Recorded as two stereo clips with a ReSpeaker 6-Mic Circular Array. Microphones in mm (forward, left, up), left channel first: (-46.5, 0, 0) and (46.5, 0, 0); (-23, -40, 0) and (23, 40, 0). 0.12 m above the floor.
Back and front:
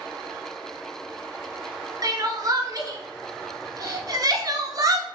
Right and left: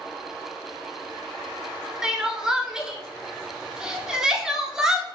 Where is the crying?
20° right, 0.5 m.